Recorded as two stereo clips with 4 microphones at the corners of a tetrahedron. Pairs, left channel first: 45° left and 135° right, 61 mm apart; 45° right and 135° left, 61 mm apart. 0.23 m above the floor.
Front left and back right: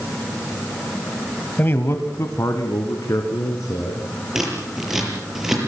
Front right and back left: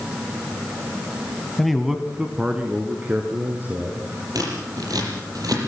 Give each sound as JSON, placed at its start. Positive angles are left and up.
{"t": 1.6, "sound": "a man speaking", "azimuth_deg": 35, "distance_m": 1.1}
{"t": 4.3, "sound": "scissors", "azimuth_deg": 145, "distance_m": 6.5}